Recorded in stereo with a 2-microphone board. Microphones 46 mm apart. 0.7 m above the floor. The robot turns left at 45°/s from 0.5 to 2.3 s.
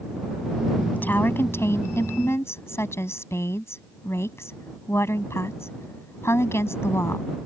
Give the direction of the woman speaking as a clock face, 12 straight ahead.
7 o'clock.